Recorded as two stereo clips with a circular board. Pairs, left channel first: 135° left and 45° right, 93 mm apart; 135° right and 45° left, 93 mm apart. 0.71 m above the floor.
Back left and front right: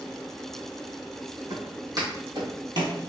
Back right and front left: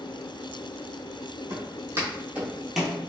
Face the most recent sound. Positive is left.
turn(degrees=-50)